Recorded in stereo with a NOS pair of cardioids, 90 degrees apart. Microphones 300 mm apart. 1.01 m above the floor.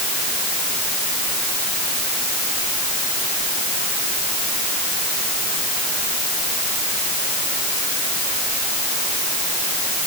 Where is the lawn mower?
I don't hear a lawn mower.